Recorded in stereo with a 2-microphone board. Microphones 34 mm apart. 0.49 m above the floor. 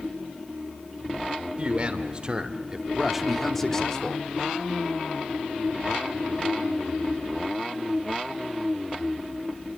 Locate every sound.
1.6 s a man speaking: 35° right (ahead or behind), 1.8 m; by 4.2 s 25° left (ahead or behind), 1.4 m